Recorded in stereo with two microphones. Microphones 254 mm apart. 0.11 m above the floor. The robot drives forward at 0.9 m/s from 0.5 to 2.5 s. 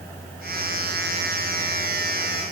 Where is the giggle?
No giggle in this recording.